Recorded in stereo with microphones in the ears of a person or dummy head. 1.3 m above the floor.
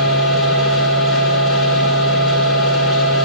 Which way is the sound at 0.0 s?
Centre (ahead or behind).